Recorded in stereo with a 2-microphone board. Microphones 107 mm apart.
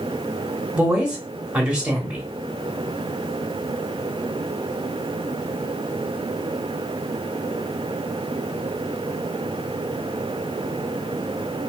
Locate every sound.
0.8 s a woman speaking: 10° right (ahead or behind), 1.0 m